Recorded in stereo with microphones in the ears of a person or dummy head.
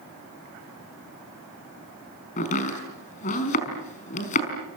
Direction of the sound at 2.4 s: 40° left (ahead or behind).